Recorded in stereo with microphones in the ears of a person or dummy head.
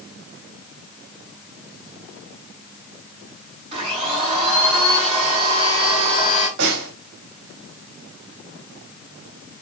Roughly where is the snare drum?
Right.